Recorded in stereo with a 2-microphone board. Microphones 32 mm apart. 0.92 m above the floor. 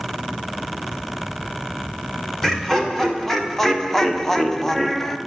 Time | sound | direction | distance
2.4 | laughter | 10° left (ahead or behind) | 3 m